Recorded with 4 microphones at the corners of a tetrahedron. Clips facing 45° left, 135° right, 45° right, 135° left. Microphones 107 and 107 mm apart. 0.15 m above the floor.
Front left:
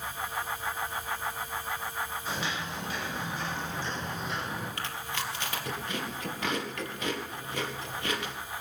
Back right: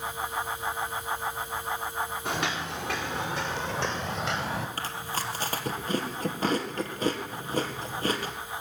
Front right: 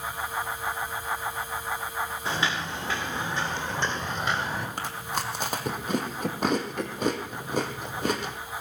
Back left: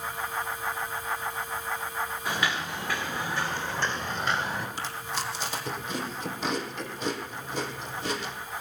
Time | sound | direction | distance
2.2 | footsteps | 110° right | 5.5 m
4.8 | chewing | 80° right | 2 m